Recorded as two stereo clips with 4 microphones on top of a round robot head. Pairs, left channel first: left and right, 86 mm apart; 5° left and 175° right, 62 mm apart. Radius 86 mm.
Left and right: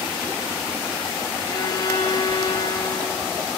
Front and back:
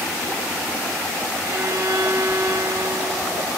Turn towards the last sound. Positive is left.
turn(degrees=145)